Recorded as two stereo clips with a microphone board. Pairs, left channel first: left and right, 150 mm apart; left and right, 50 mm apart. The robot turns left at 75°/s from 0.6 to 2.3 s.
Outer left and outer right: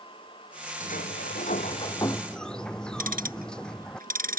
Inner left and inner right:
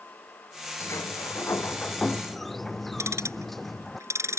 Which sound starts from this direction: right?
Ticking, at 3.0 s.